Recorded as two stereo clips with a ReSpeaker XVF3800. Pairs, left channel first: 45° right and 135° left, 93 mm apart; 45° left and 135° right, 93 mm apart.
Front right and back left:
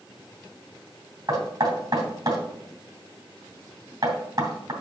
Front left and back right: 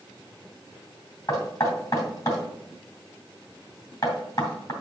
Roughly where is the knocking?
Left.